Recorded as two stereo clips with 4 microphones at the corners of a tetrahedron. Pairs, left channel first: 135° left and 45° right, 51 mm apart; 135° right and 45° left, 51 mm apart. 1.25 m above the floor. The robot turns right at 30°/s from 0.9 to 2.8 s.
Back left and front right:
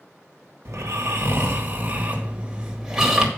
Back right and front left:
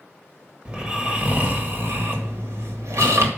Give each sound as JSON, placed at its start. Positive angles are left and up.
{"t": 0.7, "sound": "snoring", "azimuth_deg": -20, "distance_m": 1.8}